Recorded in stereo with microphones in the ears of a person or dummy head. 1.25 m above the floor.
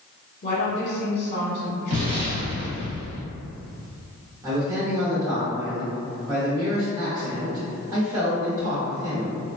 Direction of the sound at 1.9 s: 40° right (ahead or behind).